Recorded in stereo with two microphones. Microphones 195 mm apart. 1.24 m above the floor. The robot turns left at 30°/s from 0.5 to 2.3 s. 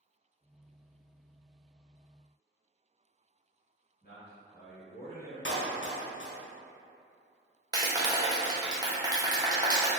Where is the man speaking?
55° left (ahead or behind), 1.2 m.